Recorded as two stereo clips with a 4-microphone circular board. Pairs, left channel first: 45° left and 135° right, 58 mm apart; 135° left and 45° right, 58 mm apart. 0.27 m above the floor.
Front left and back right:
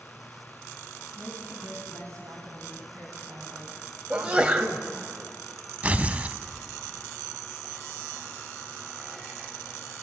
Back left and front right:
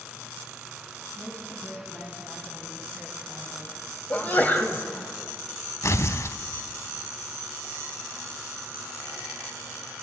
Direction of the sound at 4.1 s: 165° left.